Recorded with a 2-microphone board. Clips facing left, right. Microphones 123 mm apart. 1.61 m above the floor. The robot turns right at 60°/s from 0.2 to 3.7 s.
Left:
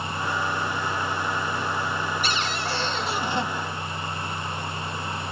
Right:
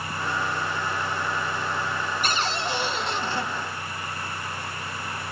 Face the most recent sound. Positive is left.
turn(degrees=40)